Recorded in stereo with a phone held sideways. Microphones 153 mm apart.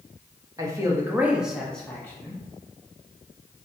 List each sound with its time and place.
0.6 s a man speaking: 20° right (ahead or behind), 1.1 m; by 2.4 s 20° left (ahead or behind), 1.0 m